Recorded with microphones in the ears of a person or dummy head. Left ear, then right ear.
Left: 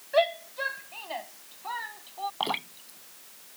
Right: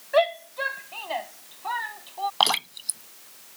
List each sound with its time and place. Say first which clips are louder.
0.1 s a shout: right 3 dB; 20° right (ahead or behind); by 2.3 s 10° right (ahead or behind)
2.4 s dripping: right 10 dB; 60° right (ahead or behind)